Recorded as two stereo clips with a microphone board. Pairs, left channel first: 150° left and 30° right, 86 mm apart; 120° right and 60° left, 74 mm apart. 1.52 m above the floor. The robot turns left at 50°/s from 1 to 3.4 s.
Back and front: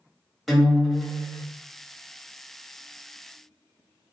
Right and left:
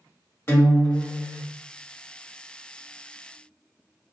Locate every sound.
0.5 s a guitar: 120° right, 1.5 m; by 1.4 s 140° right, 1.5 m